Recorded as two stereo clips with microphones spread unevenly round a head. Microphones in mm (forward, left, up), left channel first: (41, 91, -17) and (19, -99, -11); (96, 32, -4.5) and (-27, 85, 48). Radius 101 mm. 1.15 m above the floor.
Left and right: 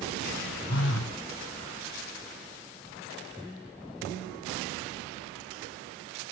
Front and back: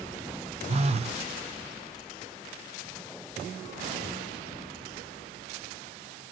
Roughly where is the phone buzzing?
Behind left.